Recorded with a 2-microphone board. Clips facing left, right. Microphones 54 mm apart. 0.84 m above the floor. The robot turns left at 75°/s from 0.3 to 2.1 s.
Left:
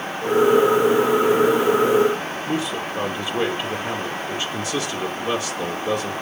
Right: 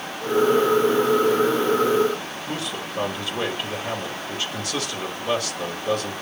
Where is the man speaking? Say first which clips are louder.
Left 5 dB; 20° left (ahead or behind), 2.5 m.